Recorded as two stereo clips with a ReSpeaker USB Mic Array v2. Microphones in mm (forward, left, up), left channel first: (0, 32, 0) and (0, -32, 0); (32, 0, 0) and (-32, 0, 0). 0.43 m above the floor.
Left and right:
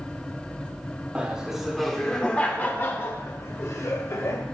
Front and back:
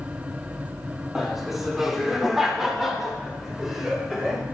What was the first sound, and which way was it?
Laughter, 95° right.